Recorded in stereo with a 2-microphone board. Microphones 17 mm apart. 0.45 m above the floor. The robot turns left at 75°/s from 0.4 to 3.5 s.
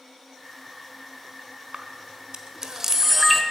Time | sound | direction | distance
1.7 | a camera shutter | 50° right (ahead or behind) | 1.1 m